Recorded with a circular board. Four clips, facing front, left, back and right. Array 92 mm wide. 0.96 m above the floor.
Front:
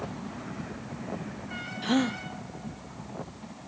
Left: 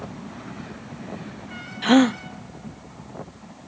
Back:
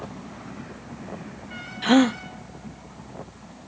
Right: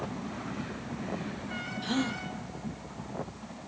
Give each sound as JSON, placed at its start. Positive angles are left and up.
{"t": 1.8, "sound": "a gasp", "azimuth_deg": 120, "distance_m": 0.5}